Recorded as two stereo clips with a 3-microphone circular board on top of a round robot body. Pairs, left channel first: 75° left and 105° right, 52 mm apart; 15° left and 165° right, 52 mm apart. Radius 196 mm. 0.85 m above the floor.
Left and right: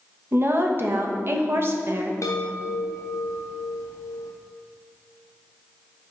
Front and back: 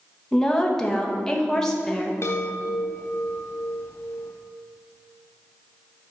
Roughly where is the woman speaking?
Ahead right.